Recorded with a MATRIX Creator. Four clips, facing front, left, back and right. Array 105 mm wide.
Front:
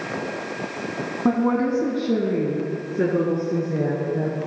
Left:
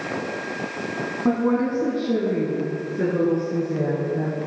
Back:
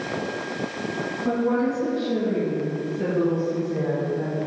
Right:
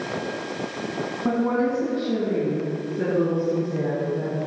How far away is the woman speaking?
About 1.6 m.